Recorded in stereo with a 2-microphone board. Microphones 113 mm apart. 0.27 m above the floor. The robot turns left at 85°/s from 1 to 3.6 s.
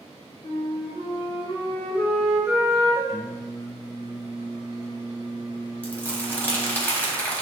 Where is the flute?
105° left, 1.9 m; by 3.0 s 65° right, 1.9 m.